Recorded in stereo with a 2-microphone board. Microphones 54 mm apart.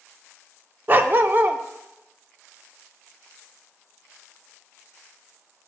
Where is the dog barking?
35° right (ahead or behind), 0.5 m.